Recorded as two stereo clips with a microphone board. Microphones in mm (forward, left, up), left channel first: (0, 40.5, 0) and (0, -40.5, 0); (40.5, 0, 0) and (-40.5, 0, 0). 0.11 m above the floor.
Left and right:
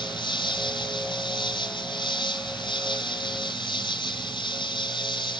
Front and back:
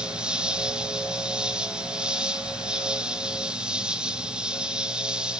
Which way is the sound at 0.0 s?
100° left.